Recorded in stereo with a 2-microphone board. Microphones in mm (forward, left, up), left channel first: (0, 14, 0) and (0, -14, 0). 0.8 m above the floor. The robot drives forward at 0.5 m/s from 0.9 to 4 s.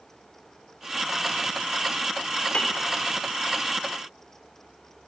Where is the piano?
50° left (ahead or behind), 3 m.